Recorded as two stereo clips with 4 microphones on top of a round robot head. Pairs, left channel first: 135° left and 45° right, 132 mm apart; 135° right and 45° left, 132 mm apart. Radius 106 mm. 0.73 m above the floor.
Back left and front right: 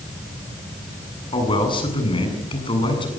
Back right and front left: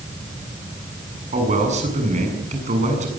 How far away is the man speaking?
About 8 m.